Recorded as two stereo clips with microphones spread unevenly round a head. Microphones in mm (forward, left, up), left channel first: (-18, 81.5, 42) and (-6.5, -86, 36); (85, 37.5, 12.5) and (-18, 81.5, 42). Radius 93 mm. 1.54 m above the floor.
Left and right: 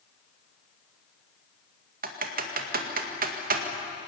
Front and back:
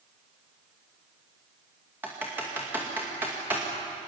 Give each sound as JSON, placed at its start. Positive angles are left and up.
{"t": 2.0, "sound": "typing on a keyboard", "azimuth_deg": -125, "distance_m": 2.0}